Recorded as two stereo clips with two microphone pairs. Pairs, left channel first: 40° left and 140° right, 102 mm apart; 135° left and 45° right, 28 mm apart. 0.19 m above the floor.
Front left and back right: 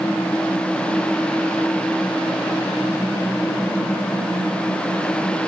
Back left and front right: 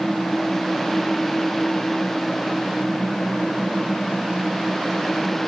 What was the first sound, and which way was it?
Only background noise.